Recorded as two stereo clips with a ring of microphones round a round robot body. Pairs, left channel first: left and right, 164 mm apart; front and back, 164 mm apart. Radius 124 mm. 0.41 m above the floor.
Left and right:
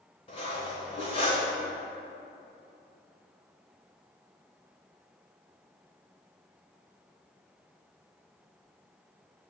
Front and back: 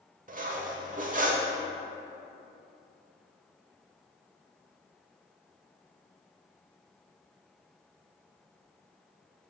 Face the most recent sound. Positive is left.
turn(degrees=150)